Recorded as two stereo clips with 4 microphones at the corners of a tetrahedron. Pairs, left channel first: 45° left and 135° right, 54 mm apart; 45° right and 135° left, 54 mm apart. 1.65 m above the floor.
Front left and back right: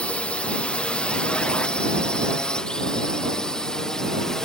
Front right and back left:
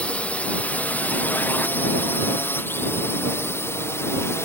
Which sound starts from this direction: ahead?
A drone, at 0.0 s.